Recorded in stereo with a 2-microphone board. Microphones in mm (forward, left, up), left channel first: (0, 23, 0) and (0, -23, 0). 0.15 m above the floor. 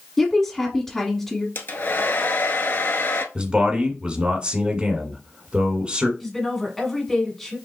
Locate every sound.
0.2 s a woman speaking: 5° left (ahead or behind), 1.2 m
1.6 s a hair dryer: 50° left (ahead or behind), 0.6 m
3.4 s a man speaking: 25° right (ahead or behind), 1.4 m
6.2 s a woman speaking: 5° left (ahead or behind), 1.7 m